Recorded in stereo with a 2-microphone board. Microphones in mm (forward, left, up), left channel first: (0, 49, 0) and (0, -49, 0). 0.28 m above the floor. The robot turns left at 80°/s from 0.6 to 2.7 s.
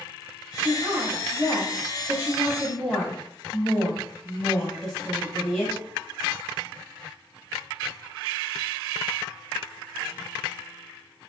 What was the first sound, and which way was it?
A woman speaking, 20° right.